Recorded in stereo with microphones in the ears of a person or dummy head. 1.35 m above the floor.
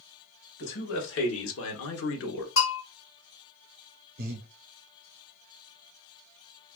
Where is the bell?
45° left (ahead or behind), 1.7 m.